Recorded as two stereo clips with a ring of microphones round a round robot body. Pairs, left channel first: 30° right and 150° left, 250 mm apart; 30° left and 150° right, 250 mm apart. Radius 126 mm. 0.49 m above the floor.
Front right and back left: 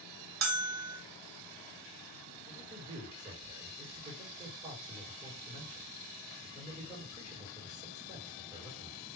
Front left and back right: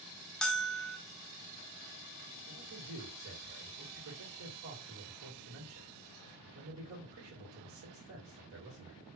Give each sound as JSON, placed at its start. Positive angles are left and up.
{"t": 0.4, "sound": "a bell", "azimuth_deg": 120, "distance_m": 0.9}
{"t": 2.5, "sound": "a man speaking", "azimuth_deg": -140, "distance_m": 2.0}